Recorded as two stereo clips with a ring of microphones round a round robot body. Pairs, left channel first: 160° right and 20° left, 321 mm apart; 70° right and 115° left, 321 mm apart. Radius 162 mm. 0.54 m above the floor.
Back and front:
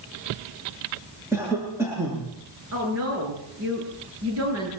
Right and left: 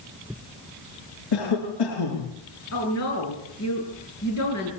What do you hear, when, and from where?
1.3 s a cough: 60° right, 6.5 m
2.7 s a woman speaking: 25° right, 9 m